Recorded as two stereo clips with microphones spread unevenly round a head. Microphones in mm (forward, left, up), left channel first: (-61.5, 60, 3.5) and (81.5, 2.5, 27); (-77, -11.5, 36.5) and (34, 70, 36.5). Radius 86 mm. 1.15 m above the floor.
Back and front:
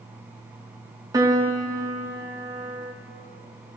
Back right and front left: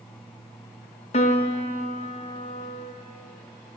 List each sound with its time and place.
1.1 s a piano: 90° right, 0.7 m